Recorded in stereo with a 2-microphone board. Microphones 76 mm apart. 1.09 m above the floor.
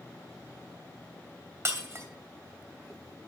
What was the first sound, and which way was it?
Breaking glass, 35° right (ahead or behind).